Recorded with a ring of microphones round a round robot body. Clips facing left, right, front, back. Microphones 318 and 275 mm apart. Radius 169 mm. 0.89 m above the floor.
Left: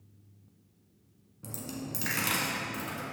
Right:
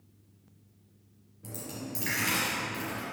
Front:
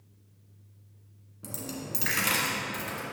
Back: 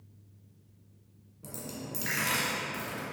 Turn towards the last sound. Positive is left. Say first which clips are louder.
# left 1 dB, front 3 dB
turn(degrees=70)